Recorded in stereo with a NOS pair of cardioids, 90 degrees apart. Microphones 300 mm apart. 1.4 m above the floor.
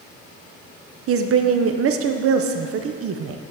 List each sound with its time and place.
1.1 s a woman speaking: 50° right, 0.6 m